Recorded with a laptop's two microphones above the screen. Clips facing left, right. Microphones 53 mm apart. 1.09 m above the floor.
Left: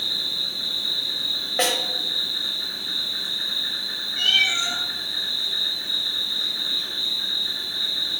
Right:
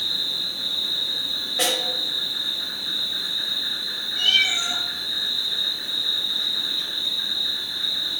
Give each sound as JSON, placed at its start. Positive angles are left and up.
{"t": 0.0, "sound": "an insect", "side_deg": -30, "distance_m": 1.3}
{"t": 1.6, "sound": "a snare drum", "side_deg": 35, "distance_m": 0.7}
{"t": 4.2, "sound": "a cat meowing", "side_deg": 30, "distance_m": 1.1}